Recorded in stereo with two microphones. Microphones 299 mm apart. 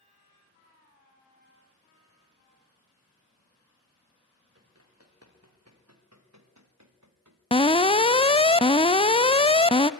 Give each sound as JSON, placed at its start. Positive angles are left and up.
{"t": 4.5, "sound": "running footsteps", "side_deg": -50, "distance_m": 5.5}
{"t": 7.5, "sound": "an alarm", "side_deg": 20, "distance_m": 0.7}